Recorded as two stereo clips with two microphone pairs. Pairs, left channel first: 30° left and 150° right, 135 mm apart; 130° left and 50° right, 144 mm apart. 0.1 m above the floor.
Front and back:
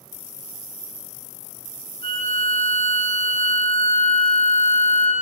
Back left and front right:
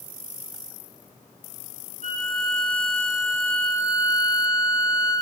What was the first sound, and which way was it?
A violin, 15° right.